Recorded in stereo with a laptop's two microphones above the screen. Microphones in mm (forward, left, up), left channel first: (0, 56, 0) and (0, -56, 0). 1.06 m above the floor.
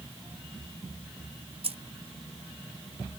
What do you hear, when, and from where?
1.6 s keys jangling: 60° right (ahead or behind), 0.6 m